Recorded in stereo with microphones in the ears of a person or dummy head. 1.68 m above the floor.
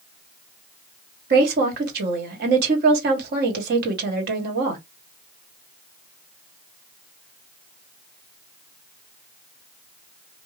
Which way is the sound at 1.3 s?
55° right (ahead or behind).